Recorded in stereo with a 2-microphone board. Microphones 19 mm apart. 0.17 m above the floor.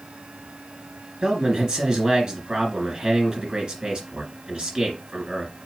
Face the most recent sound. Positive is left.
turn(degrees=-35)  # may be behind; listen again after turning